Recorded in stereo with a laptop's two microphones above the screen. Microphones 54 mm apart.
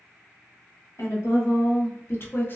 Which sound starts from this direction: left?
A woman speaking, at 1.0 s.